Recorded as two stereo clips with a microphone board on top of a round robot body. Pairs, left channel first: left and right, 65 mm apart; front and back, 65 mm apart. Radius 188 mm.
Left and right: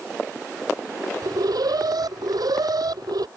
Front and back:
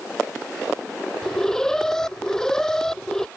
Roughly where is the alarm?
Right.